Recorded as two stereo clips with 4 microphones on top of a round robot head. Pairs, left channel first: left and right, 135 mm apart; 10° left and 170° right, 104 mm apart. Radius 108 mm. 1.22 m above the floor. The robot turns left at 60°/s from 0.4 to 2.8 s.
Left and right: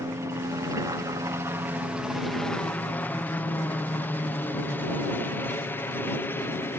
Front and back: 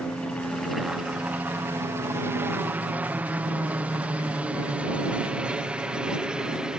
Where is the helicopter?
60° right; by 6.8 s 125° left.